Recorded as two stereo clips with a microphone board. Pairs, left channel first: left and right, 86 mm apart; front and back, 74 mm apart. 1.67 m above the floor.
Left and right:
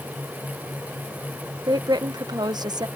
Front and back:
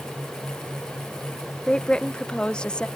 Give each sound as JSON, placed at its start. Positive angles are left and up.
{"t": 1.7, "sound": "a woman speaking", "azimuth_deg": -75}